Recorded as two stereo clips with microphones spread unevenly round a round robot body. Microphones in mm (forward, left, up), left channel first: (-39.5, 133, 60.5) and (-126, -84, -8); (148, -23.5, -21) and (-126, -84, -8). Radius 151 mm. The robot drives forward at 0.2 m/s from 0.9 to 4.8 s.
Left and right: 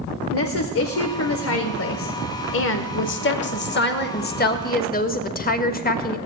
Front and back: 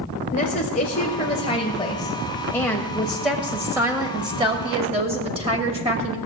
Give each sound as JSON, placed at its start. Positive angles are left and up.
{"t": 0.3, "sound": "a woman speaking", "azimuth_deg": 60, "distance_m": 1.0}